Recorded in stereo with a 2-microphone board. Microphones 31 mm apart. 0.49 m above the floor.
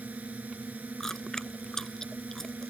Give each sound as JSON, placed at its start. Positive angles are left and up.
{"t": 0.0, "sound": "a drone", "side_deg": -55}
{"t": 1.0, "sound": "chewing", "side_deg": 15}